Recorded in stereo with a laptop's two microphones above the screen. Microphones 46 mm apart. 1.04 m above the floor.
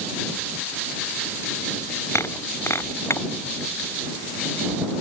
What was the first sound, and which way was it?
Breaking glass, 80° left.